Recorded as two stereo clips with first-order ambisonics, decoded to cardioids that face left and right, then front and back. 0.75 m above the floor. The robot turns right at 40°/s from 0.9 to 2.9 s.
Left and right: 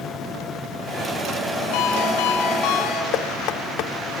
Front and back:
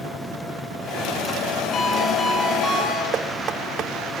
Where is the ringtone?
65° left, 5.5 m; by 3.0 s 110° left, 5.5 m.